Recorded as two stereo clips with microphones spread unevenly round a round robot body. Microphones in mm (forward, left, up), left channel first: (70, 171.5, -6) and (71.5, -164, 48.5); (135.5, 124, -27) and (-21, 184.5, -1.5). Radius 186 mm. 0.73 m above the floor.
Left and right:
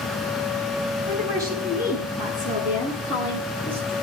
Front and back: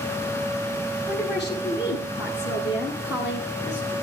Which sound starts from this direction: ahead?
A woman speaking, at 1.1 s.